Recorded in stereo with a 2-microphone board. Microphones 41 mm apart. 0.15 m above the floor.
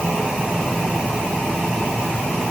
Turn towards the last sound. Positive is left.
No sound to turn to.